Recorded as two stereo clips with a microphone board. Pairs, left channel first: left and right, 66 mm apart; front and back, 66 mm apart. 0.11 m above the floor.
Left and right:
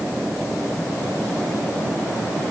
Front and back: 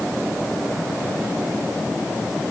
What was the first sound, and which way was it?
Only background noise.